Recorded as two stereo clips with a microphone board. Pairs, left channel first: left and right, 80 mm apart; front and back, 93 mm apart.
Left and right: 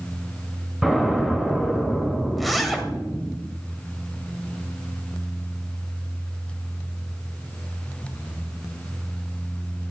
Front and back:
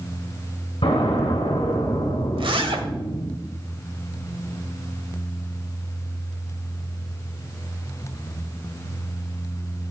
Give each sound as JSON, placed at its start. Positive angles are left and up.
{"t": 0.8, "sound": "an explosion", "azimuth_deg": -5, "distance_m": 3.0}
{"t": 2.4, "sound": "a zipper", "azimuth_deg": 180, "distance_m": 1.1}